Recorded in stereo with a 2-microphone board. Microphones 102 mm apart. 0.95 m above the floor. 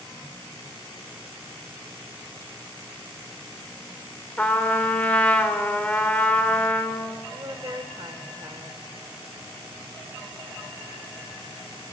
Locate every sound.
4.4 s a trumpet: 15° left (ahead or behind), 4 m
7.3 s a woman speaking: 40° right (ahead or behind), 3 m